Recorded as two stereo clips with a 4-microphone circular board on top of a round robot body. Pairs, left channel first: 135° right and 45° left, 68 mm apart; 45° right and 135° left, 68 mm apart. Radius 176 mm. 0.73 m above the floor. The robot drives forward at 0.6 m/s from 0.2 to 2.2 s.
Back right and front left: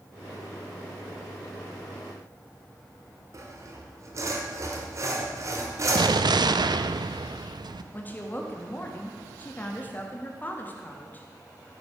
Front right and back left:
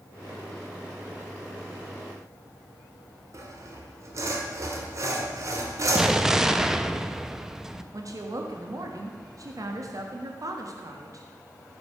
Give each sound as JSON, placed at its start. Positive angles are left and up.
{"t": 3.3, "sound": "sawing", "azimuth_deg": 90, "distance_m": 1.5}
{"t": 6.0, "sound": "an explosion", "azimuth_deg": 55, "distance_m": 0.6}
{"t": 7.9, "sound": "a woman speaking", "azimuth_deg": 160, "distance_m": 1.4}